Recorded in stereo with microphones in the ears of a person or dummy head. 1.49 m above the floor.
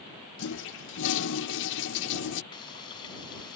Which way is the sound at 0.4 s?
70° left (ahead or behind).